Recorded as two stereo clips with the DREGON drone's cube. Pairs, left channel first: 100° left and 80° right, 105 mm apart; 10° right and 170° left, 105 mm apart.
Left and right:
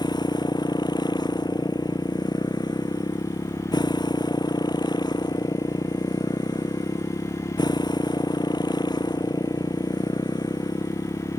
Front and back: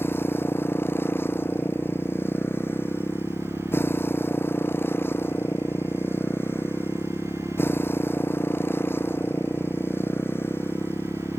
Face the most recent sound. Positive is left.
turn(degrees=55)